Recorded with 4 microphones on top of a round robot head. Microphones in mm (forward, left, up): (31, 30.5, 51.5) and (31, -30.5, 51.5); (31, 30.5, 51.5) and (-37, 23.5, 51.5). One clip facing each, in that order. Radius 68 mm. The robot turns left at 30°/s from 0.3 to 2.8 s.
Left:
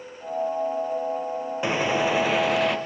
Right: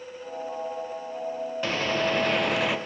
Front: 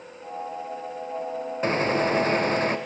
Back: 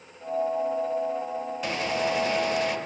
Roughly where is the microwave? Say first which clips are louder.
Left 3 dB, front 5 dB; ahead left.